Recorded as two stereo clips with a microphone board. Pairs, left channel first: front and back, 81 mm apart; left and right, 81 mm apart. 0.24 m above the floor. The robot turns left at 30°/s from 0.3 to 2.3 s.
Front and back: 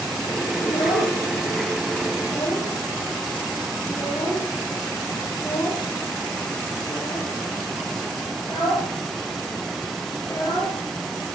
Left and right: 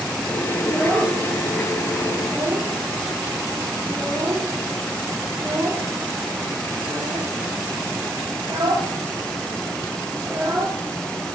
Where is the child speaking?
15° left, 5 m; by 10.8 s 40° right, 5 m.